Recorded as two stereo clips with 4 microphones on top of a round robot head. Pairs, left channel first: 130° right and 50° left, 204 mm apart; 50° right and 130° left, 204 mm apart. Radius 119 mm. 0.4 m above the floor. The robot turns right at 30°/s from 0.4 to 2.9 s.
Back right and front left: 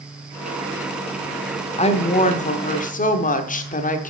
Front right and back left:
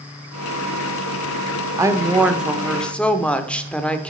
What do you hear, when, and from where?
1.8 s a woman speaking: 165° right, 1.0 m; by 4.1 s 135° right, 1.0 m